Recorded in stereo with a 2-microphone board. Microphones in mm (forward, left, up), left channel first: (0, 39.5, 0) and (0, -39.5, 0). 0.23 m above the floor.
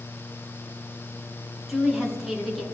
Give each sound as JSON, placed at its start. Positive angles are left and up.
{"t": 1.7, "sound": "a woman speaking", "side_deg": 0, "distance_m": 2.5}